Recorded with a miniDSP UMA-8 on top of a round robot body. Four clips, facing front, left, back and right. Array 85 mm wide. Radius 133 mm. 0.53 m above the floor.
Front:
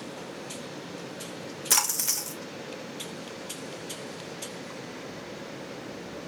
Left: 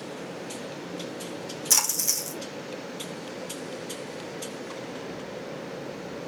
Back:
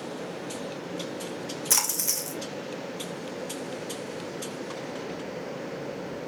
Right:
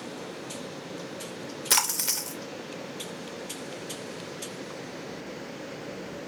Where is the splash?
75° right, 0.8 m.